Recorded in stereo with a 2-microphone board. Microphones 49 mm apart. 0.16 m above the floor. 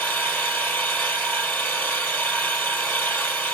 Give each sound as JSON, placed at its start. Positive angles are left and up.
{"t": 0.0, "sound": "an engine running", "side_deg": 45, "distance_m": 3.0}